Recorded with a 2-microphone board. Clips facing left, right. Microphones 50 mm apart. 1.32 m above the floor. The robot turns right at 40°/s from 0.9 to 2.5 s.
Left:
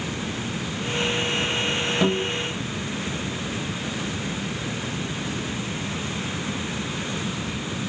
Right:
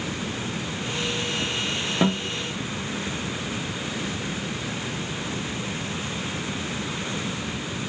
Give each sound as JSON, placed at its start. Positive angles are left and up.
{"t": 2.0, "sound": "a guitar", "side_deg": -15, "distance_m": 0.6}